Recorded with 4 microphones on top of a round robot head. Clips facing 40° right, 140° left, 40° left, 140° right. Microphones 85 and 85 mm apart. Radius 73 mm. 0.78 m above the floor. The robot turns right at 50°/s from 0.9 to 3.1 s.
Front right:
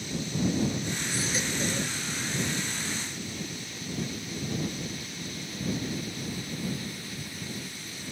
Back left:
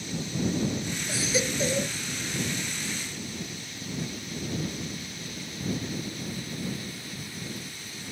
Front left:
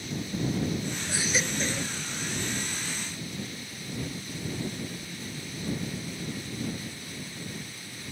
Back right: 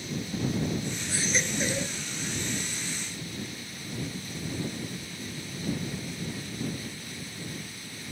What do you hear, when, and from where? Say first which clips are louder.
1.1 s a baby crying: back left 6 dB, even; 115° left; by 1.9 s 155° left